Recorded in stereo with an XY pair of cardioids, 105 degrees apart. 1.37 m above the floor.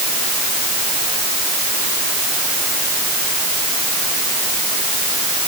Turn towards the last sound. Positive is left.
No sound to turn to.